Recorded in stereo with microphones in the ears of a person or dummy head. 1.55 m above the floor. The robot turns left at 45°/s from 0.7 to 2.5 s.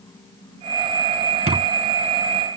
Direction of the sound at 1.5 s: 30° right (ahead or behind).